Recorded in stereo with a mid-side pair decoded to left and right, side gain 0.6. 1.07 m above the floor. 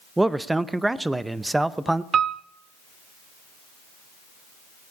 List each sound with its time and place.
0.2 s a man speaking: 10° right, 0.6 m
2.1 s a piano: 40° right, 0.6 m